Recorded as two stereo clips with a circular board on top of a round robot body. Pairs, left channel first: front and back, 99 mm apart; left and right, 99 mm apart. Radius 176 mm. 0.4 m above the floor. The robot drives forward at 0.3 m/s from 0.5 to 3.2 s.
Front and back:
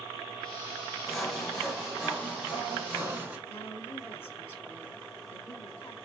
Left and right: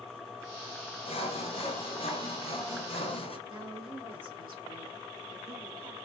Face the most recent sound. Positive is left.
turn(degrees=-65)